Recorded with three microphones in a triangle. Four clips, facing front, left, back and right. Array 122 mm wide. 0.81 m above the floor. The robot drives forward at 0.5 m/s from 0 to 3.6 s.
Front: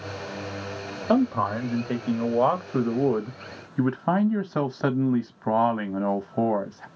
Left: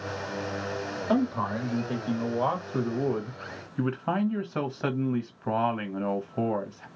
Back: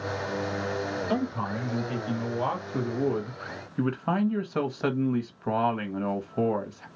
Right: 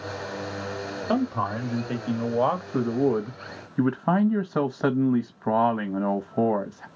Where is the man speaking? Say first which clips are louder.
Right 1 dB, front 11 dB; 15° right, 2.0 m; by 6.9 s 50° right, 1.1 m.